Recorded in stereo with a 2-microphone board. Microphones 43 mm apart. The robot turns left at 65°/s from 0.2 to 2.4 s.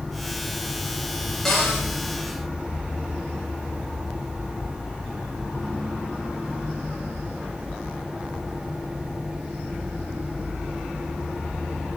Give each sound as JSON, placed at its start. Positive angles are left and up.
{"t": 1.4, "sound": "a cupboard door", "side_deg": 5, "distance_m": 2.5}